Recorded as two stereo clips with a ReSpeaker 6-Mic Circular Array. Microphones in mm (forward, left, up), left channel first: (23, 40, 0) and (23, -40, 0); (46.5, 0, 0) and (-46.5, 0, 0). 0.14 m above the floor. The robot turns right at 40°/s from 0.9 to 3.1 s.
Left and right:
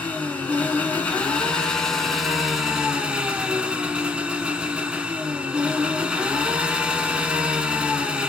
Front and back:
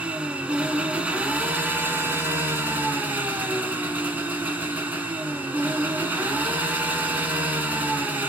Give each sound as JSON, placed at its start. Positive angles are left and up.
{"t": 0.0, "sound": "an engine running", "azimuth_deg": 125, "distance_m": 1.1}